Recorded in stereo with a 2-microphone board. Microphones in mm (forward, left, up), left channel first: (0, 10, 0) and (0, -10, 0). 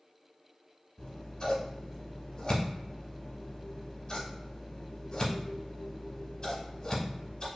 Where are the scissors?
35° left (ahead or behind), 0.8 m.